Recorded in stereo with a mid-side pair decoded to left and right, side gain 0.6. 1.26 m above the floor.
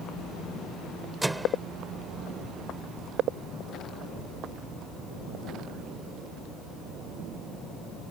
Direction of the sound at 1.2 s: 10° right.